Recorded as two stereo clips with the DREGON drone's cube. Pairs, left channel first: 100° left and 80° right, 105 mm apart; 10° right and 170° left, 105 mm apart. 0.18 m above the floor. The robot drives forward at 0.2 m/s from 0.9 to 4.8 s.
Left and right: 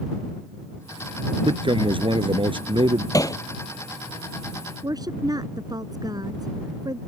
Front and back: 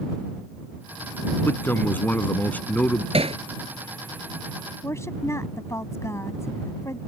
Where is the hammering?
155° left.